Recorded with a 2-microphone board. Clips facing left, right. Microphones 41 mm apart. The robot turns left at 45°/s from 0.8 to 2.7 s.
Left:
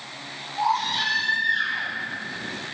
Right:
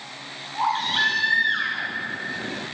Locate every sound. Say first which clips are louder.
0.5 s a baby crying: right 1 dB; 50° right, 6 m; by 1.9 s 95° right, 6 m